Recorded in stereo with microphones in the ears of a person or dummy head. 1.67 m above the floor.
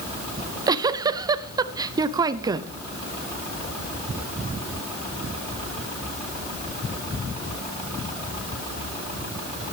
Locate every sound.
0.4 s a giggle: 20° right (ahead or behind), 0.5 m